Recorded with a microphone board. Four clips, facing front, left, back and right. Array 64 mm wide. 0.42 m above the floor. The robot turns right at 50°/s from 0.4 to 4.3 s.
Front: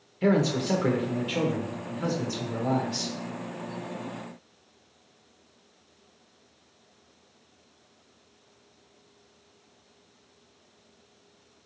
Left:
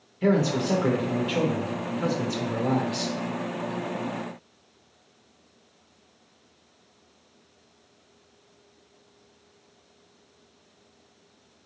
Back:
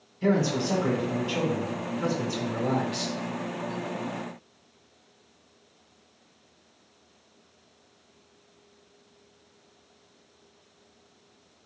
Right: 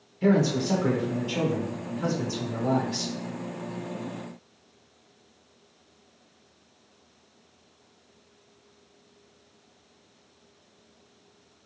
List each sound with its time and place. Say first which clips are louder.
0.2 s a man speaking: even, front 1 dB; 10° left, 0.9 m; by 3.1 s 145° left, 0.9 m